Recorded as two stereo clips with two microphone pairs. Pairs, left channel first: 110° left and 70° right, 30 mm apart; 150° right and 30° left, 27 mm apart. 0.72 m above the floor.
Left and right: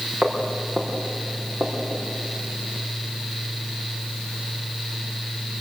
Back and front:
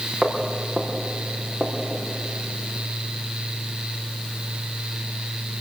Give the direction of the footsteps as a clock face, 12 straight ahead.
2 o'clock.